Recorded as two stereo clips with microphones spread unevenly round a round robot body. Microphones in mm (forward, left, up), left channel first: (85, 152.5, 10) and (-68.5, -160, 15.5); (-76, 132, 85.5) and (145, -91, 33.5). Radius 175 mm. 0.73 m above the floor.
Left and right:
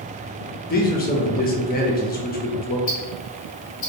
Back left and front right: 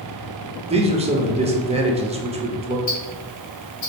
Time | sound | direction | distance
0.7 | a man speaking | 10° left | 0.9 m
2.9 | ticking | 95° left | 1.7 m